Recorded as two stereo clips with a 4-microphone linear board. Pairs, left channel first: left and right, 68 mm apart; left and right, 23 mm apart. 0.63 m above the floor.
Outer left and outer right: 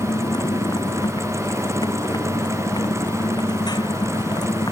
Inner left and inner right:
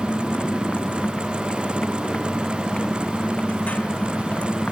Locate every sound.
0.0 s a motorcycle: 70° left (ahead or behind)